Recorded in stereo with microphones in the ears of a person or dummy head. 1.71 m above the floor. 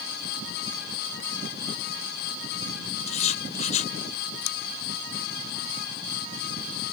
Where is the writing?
40° left (ahead or behind).